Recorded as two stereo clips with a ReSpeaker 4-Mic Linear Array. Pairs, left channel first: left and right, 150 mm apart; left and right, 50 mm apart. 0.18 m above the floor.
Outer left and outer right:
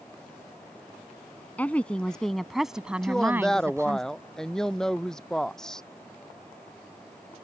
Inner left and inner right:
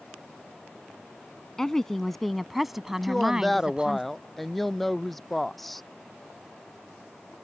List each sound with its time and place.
1.6 s a woman speaking: 10° left (ahead or behind); by 4.0 s 20° right (ahead or behind)
3.0 s a woman speaking: 5° left (ahead or behind)